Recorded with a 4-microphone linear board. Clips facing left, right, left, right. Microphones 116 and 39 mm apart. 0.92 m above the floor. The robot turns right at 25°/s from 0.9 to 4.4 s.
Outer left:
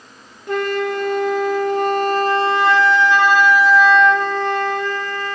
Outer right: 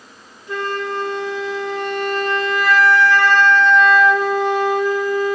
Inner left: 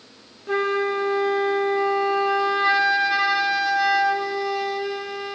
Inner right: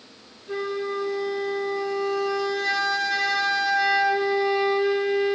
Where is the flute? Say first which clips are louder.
Outer left 4 dB, inner left 6 dB; 105° left, 1.8 m; by 5.4 s 170° right, 1.8 m.